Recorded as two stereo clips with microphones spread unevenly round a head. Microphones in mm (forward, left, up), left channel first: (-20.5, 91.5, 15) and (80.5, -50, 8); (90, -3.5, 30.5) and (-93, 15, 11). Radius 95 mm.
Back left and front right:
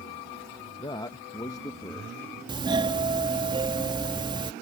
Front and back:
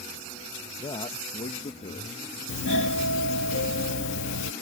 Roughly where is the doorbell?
Ahead.